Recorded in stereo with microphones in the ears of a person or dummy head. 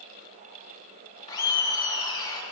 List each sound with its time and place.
1.3 s laughter: 20° left (ahead or behind), 1.2 m